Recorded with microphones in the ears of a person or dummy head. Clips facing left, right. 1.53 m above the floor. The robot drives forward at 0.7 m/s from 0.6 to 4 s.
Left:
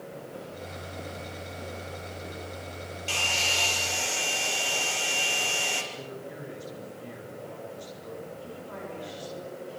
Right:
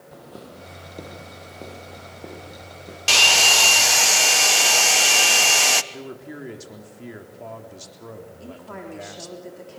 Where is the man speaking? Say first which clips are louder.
Right 3 dB; 70° right (ahead or behind), 3.5 m.